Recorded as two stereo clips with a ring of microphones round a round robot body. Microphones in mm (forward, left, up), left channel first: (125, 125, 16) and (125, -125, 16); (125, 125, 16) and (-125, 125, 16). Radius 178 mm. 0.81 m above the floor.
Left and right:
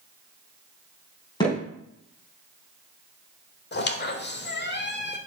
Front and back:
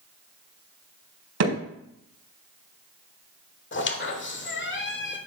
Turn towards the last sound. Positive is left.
turn(degrees=40)